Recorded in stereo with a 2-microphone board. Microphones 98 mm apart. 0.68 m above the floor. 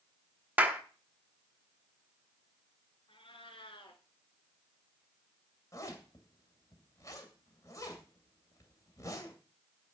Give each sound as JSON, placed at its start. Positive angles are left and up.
{"t": 0.6, "sound": "a clap", "side_deg": -15, "distance_m": 1.2}
{"t": 3.1, "sound": "a cat meowing", "side_deg": 65, "distance_m": 2.0}
{"t": 5.7, "sound": "a zipper", "side_deg": 35, "distance_m": 2.5}